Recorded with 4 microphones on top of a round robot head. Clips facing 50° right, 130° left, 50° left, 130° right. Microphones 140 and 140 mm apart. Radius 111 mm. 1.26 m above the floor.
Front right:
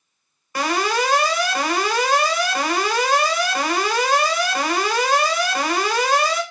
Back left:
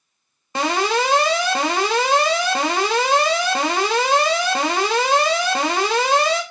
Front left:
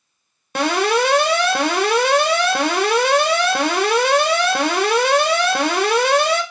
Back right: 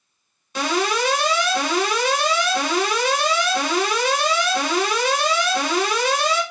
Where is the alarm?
65° left, 1.5 m.